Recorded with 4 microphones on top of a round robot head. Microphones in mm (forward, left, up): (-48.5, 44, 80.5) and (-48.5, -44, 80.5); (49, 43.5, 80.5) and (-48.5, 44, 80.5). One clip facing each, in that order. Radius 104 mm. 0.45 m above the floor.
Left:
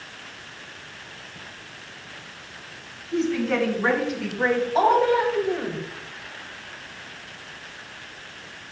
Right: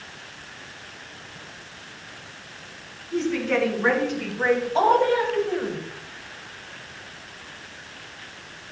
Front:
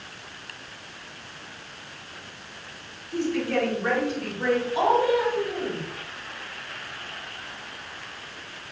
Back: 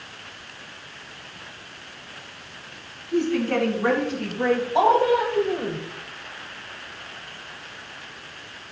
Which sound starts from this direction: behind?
A woman speaking, at 3.1 s.